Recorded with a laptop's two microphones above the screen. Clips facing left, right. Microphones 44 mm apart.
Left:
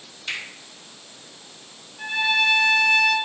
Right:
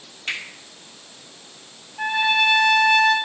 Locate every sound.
0.3 s a finger snap: 50° right (ahead or behind), 3 m
2.0 s a trumpet: 70° right (ahead or behind), 1.1 m